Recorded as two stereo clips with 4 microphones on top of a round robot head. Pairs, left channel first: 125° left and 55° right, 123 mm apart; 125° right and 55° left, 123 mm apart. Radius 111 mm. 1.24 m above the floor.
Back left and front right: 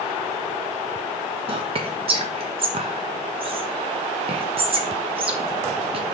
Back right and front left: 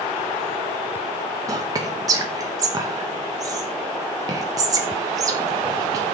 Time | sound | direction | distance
1.5 | whispering | 10° right | 0.7 m